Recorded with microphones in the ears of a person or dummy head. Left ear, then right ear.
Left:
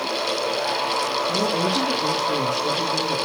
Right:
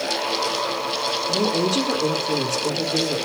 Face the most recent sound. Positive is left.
turn(degrees=-10)  # may be behind; listen again after turning